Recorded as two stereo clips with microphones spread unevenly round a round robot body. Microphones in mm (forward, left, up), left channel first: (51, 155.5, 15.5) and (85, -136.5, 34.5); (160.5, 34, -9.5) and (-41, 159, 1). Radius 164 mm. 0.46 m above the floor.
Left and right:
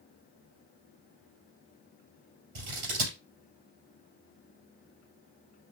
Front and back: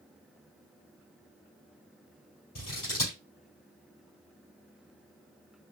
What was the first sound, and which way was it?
Scissors, 95° right.